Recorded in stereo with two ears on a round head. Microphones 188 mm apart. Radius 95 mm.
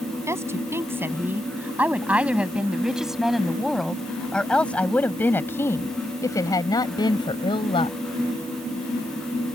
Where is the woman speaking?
15° right (ahead or behind); by 8.0 s 25° left (ahead or behind).